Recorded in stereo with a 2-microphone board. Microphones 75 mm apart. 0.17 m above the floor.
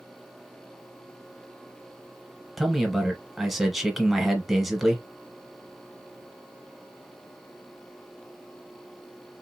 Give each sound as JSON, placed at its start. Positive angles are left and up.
{"t": 2.6, "sound": "a man speaking", "side_deg": 0, "distance_m": 1.1}